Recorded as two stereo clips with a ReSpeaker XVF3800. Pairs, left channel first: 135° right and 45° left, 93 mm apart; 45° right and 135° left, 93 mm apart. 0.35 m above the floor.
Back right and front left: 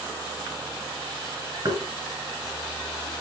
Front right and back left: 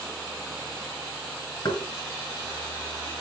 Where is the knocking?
Straight ahead, 4 m.